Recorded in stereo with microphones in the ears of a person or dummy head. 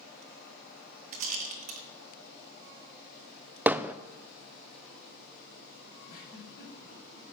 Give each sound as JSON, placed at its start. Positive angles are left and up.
{"t": 1.1, "sound": "a rattle", "side_deg": -45, "distance_m": 1.7}
{"t": 3.7, "sound": "hammering", "side_deg": -15, "distance_m": 0.6}
{"t": 6.1, "sound": "a giggle", "side_deg": 45, "distance_m": 7.5}